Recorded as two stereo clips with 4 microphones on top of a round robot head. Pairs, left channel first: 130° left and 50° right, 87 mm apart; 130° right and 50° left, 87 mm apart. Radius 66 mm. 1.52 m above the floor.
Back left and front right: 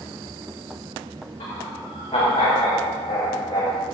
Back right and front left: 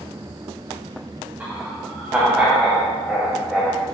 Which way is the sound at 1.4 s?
120° left.